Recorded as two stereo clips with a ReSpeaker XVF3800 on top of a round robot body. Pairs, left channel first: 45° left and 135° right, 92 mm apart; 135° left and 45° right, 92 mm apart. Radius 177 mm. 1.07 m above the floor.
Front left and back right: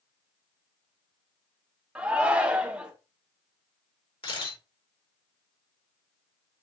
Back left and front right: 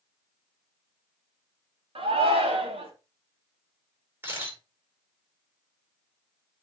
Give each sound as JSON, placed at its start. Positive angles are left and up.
{"t": 1.9, "sound": "a shout", "azimuth_deg": -55, "distance_m": 3.0}
{"t": 4.2, "sound": "a camera shutter", "azimuth_deg": 20, "distance_m": 6.0}